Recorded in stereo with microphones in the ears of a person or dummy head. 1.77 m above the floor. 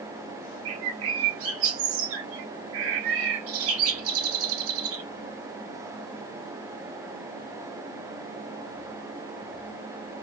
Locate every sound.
0.7 s a bird: 85° right, 0.8 m